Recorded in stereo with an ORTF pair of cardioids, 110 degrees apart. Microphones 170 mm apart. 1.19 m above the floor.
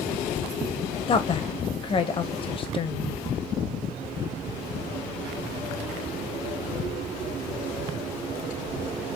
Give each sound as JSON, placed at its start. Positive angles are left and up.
{"t": 1.1, "sound": "a woman speaking", "azimuth_deg": 30, "distance_m": 0.8}